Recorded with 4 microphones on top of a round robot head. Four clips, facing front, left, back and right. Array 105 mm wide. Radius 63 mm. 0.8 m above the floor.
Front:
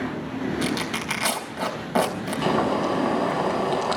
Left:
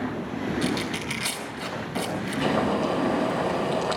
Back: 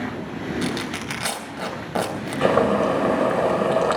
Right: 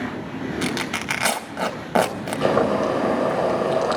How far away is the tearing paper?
About 3.5 m.